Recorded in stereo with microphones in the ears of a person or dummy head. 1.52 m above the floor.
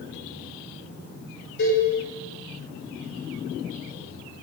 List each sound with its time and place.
1.6 s a cowbell: 55° left (ahead or behind), 0.6 m